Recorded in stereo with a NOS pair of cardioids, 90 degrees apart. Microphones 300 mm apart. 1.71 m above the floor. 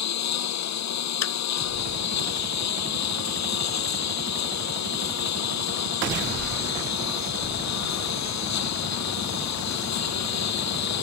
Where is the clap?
60° left.